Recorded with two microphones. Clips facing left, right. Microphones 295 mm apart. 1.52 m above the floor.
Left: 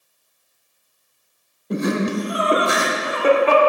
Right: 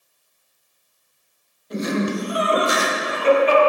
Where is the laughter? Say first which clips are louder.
Left 2 dB; 60° left (ahead or behind), 0.8 m.